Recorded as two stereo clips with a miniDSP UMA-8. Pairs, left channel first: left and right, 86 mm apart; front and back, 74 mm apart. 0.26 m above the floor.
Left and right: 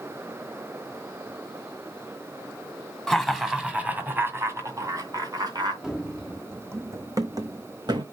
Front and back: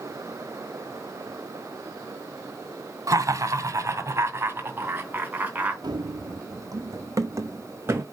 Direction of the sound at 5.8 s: 175° right.